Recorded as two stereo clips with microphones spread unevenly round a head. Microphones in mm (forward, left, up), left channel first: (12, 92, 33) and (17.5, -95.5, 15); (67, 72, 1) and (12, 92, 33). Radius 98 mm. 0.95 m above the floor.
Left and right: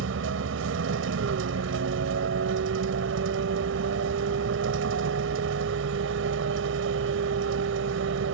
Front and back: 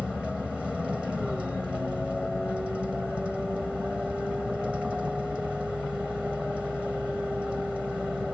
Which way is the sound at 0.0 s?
115° right.